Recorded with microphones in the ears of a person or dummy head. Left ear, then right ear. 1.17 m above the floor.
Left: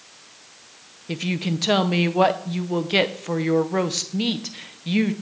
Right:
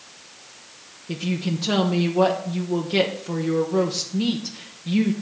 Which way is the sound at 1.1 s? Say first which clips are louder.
Left 1 dB; 35° left (ahead or behind).